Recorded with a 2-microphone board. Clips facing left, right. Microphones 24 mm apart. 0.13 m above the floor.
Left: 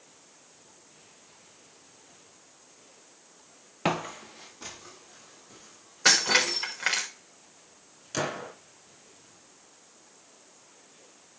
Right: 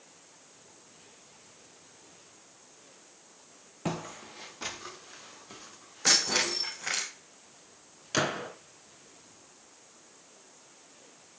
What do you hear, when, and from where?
3.9 s footsteps: 55° left (ahead or behind), 0.6 m; by 7.0 s 50° right (ahead or behind), 4.5 m
6.0 s breaking glass: 80° left, 4.5 m
8.1 s a gunshot: 30° right (ahead or behind), 1.7 m